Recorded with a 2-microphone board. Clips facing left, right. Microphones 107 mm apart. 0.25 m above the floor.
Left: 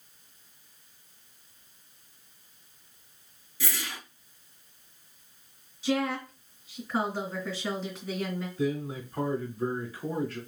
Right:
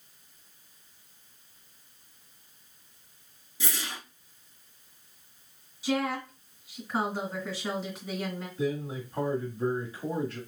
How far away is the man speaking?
About 1.5 m.